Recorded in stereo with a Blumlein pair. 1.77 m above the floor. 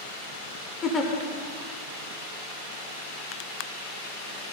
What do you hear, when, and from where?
0.8 s a giggle: 20° left, 0.9 m